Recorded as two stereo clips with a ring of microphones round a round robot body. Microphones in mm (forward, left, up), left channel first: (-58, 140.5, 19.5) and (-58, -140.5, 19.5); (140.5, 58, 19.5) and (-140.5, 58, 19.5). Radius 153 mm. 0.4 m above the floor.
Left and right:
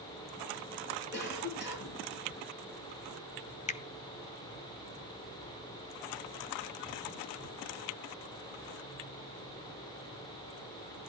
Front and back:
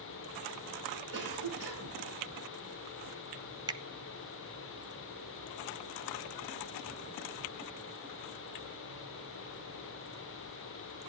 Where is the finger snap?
120° left, 0.6 m.